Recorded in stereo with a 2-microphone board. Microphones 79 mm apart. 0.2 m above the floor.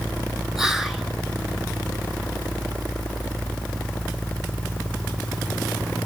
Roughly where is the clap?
No clap in this recording.